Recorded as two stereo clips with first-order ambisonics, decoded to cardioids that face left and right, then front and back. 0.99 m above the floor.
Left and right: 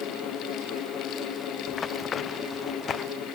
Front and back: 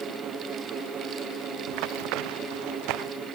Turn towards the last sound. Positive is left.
turn(degrees=155)